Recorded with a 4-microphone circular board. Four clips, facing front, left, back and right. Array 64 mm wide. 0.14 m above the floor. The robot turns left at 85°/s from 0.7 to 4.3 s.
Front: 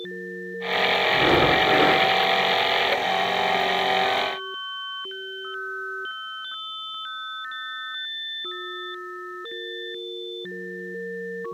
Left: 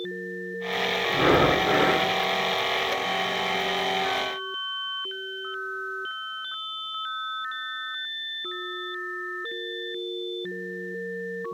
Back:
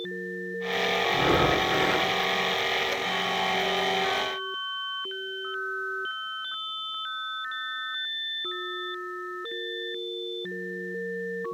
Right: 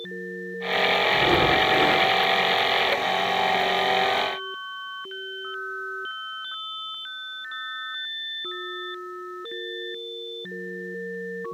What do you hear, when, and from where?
1.1 s breathing: 95° left, 5.5 m; by 2.1 s 10° left, 5.5 m